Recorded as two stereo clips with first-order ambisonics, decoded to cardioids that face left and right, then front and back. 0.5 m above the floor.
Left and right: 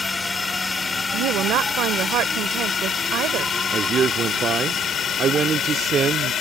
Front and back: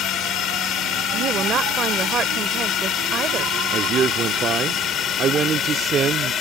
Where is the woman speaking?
125° right.